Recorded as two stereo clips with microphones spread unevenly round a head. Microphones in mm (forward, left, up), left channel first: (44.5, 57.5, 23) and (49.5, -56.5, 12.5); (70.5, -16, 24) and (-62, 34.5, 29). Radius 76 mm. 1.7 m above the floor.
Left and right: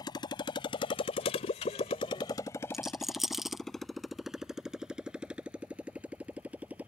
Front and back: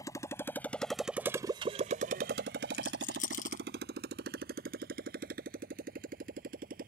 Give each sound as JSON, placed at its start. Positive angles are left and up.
{"t": 0.0, "sound": "a motorcycle", "azimuth_deg": 45}
{"t": 2.7, "sound": "a rattle", "azimuth_deg": 5}